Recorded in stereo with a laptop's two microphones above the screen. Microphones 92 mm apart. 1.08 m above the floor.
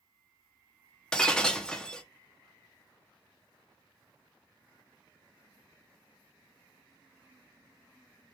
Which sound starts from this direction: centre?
Breaking glass, at 1.1 s.